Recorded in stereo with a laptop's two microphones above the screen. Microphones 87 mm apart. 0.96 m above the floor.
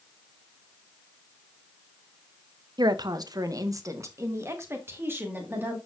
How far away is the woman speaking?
About 0.6 m.